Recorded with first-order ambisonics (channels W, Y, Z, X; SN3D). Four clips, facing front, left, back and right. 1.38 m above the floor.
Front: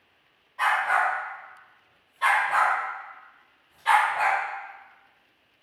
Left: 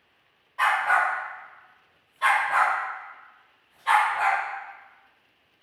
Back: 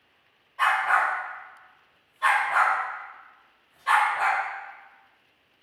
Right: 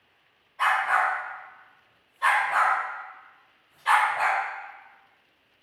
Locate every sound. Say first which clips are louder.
0.6 s a dog barking: left 1 dB, back 1 dB; 90° left, 1.2 m; by 4.4 s 40° right, 1.3 m